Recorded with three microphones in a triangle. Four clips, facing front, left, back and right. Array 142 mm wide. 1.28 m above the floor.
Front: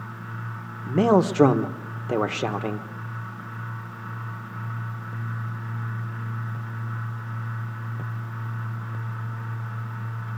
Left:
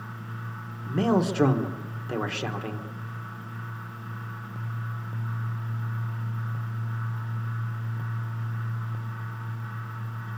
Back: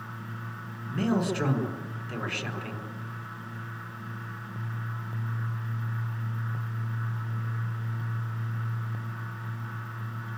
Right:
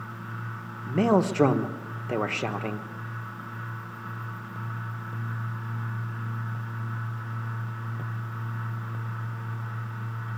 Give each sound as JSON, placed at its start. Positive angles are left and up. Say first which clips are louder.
{"t": 0.9, "sound": "a man speaking", "louder": "right 2 dB, front 8 dB", "azimuth_deg": -15, "distance_m": 1.3}